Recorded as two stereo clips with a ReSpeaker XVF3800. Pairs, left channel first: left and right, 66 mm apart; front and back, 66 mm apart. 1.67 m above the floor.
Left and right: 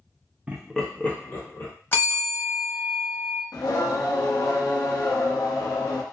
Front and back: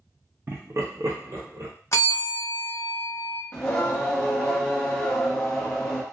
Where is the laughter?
150° right, 0.5 m; by 1.7 s 140° left, 1.3 m.